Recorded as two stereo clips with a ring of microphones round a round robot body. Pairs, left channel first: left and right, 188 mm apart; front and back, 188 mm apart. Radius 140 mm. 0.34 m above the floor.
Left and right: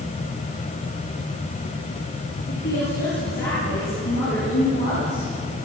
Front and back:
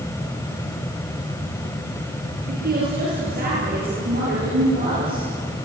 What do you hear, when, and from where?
2.5 s a woman speaking: 140° left, 8.5 m